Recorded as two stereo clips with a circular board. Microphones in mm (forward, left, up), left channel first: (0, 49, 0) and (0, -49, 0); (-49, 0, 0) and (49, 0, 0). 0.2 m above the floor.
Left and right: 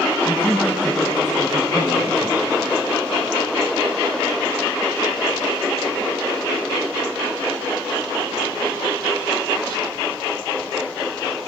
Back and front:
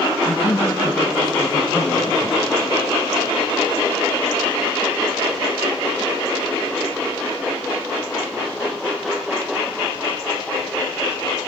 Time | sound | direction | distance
0.2 | a man speaking | 175° left | 1.7 m